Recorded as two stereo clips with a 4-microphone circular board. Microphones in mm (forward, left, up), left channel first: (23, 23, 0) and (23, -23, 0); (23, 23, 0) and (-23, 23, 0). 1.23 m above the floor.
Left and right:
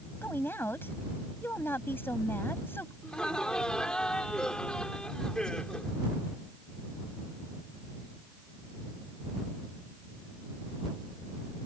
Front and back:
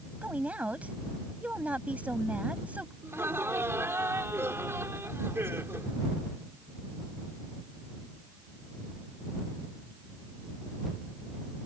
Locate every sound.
0.2 s a woman speaking: 125° left
3.0 s laughter: 165° left